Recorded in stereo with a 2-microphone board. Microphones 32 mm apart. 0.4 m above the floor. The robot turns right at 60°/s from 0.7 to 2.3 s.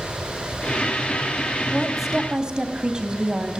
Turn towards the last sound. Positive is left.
turn(degrees=-155)